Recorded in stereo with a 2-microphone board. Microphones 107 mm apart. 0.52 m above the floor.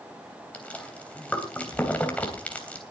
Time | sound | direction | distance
0.5 | chewing | 15° left (ahead or behind) | 3 m